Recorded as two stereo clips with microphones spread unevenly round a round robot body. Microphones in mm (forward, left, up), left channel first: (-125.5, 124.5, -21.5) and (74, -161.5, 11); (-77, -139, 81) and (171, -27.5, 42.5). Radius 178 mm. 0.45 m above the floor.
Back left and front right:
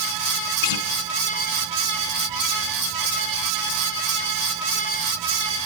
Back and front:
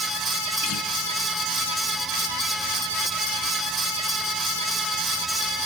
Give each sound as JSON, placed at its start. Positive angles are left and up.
{"t": 0.6, "sound": "a guitar", "azimuth_deg": 155, "distance_m": 3.5}